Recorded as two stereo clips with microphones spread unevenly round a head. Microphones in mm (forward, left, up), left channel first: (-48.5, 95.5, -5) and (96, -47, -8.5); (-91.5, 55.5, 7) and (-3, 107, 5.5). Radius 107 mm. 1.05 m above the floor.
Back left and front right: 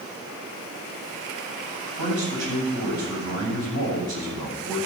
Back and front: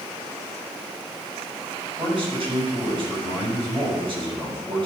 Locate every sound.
2.0 s a man speaking: 65° right, 7 m